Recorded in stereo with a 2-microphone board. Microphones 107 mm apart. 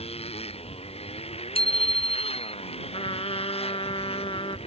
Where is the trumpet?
60° left (ahead or behind).